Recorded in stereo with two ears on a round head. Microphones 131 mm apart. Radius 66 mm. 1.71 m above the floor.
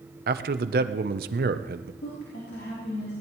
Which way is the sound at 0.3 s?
65° right (ahead or behind).